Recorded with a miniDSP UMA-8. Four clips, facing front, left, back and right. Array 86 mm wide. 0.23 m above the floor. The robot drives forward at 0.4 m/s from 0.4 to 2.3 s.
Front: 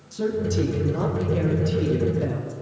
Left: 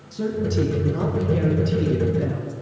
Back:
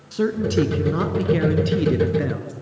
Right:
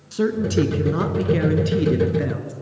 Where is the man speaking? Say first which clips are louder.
Right 4 dB, back 4 dB; 135° right, 2.5 m; by 2.5 s 145° right, 3 m.